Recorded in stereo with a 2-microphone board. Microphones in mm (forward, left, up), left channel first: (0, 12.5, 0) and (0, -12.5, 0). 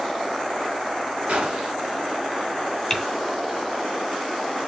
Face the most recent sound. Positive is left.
turn(degrees=10)  # may be behind; listen again after turning